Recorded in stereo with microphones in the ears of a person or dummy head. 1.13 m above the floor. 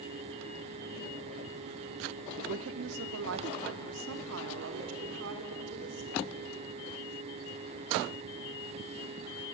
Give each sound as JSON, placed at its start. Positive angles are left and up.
{"t": 2.4, "sound": "a woman speaking", "side_deg": -60, "distance_m": 0.7}